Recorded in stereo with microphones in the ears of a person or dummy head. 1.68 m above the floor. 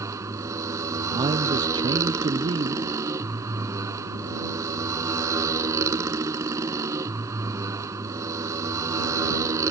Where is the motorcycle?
20° right (ahead or behind).